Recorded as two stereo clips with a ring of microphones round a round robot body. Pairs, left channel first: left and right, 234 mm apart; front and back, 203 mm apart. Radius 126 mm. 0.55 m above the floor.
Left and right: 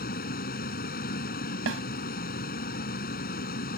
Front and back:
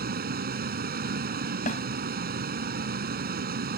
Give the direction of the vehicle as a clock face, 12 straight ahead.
7 o'clock.